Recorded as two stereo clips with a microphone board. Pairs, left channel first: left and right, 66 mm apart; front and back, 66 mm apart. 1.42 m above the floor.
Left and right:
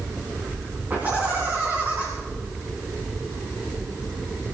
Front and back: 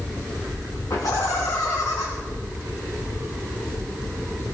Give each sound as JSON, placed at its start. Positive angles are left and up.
{"t": 0.9, "sound": "laughter", "azimuth_deg": -25, "distance_m": 3.0}